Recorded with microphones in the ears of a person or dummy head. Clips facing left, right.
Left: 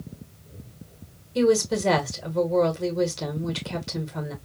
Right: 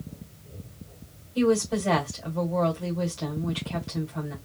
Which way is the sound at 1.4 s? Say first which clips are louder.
Left 2 dB; 75° left (ahead or behind).